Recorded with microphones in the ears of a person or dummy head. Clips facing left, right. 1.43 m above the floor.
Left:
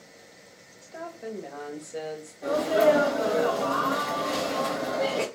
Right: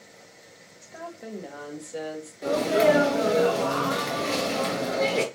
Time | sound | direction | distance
0.8 | a woman speaking | 10° right (ahead or behind) | 0.8 m
2.4 | a sneeze | 30° right (ahead or behind) | 0.6 m